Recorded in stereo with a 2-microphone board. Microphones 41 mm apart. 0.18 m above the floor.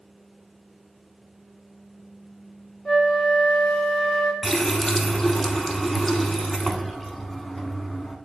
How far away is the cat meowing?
I don't hear a cat meowing.